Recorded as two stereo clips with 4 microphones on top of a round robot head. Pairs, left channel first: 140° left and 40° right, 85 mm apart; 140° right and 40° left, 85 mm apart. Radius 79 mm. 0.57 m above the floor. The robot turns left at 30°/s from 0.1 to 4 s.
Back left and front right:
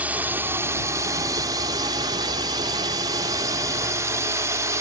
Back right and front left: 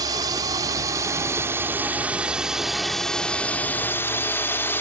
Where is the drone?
25° left; by 4.8 s 85° right.